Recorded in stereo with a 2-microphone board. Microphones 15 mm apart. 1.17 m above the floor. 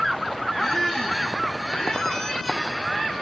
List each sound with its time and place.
0.6 s a squeak: 60° left (ahead or behind), 2 m